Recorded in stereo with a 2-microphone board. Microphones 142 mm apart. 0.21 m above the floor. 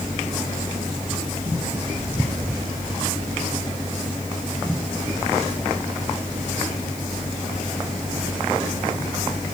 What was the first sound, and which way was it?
Only background noise.